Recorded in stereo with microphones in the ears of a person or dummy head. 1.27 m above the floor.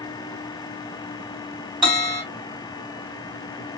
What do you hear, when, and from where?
1.8 s a bell: centre (ahead or behind), 1.9 m